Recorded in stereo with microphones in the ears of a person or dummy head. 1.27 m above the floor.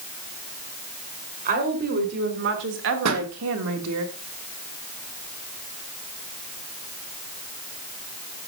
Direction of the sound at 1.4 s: 45° right (ahead or behind).